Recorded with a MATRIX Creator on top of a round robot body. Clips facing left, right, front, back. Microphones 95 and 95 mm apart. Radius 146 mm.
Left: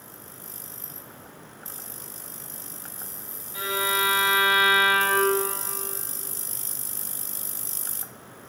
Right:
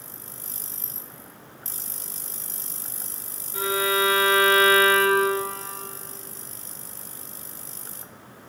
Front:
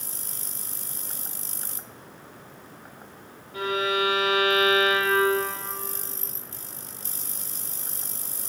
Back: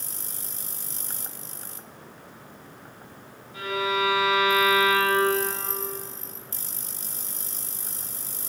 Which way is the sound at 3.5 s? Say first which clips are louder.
Right 3 dB, front 1 dB; 45° right.